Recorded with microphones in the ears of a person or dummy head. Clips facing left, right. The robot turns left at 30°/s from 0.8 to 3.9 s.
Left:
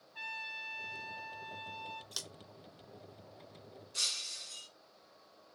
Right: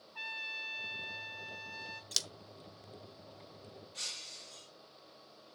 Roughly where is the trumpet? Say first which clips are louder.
Left 3 dB; ahead.